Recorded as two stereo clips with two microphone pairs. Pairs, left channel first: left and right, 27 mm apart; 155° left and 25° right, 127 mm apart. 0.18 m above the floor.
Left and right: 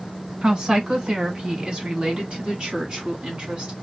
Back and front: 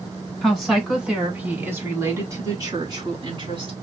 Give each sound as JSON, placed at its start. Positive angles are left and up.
{"t": 0.4, "sound": "a woman speaking", "azimuth_deg": -120, "distance_m": 2.0}